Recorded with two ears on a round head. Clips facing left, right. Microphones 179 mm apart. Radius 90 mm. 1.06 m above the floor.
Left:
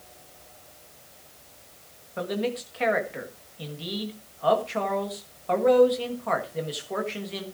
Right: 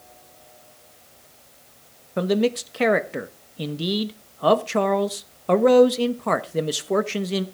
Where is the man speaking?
60° right (ahead or behind), 1.3 m.